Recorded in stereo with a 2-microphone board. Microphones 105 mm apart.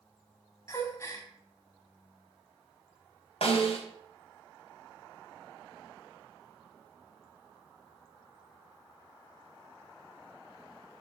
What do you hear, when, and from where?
0.7 s a gasp: 25° left (ahead or behind), 1.9 m
3.4 s a snare drum: 70° left (ahead or behind), 3 m